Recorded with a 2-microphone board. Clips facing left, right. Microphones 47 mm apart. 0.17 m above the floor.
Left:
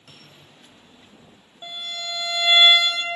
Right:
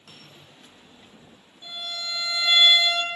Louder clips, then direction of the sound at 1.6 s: Left 2 dB; 55° left (ahead or behind).